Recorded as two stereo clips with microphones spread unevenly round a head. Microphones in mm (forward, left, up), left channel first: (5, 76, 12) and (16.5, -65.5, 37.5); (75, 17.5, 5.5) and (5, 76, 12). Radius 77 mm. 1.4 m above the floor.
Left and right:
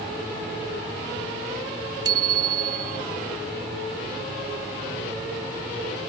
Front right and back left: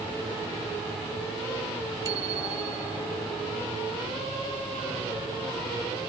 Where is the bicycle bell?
150° right.